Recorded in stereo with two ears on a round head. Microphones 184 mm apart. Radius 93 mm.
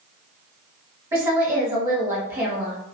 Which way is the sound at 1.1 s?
15° right (ahead or behind).